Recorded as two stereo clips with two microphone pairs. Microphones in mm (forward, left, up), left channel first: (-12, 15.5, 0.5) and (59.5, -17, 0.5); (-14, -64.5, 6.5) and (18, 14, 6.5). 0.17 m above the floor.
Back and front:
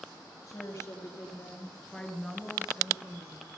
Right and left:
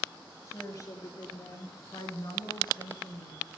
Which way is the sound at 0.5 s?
160° right.